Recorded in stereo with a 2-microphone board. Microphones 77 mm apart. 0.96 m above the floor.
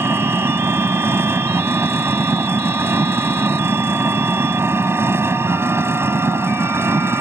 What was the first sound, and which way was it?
An engine running, 35° right (ahead or behind).